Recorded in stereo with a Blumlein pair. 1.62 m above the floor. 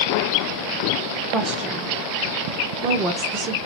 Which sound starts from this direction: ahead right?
A woman speaking, at 1.3 s.